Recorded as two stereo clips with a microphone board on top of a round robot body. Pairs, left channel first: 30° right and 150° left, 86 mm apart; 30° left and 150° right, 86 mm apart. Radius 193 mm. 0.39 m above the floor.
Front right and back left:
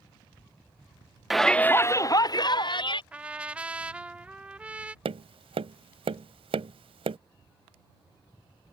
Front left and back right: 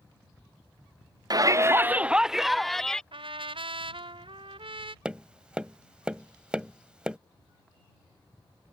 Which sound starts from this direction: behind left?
Tapping, at 5.0 s.